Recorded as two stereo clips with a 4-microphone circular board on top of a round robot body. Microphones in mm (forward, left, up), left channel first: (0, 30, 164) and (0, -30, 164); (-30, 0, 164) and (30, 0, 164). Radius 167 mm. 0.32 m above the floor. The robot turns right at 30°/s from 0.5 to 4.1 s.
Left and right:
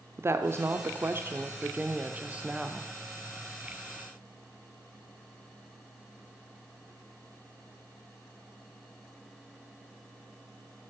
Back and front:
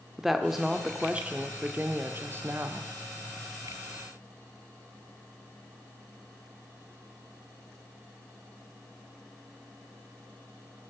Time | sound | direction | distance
0.2 | a woman speaking | 85° right | 1.0 m